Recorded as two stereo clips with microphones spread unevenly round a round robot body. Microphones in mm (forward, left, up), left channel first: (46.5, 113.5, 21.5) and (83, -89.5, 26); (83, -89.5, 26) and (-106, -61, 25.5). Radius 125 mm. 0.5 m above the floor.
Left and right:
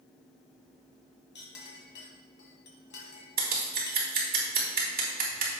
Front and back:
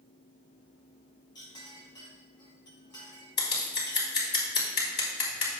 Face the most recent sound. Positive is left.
turn(degrees=-35)